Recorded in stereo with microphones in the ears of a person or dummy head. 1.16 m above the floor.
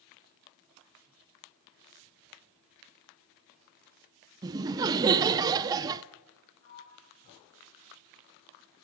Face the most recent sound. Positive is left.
turn(degrees=45)  # may be behind; listen again after turning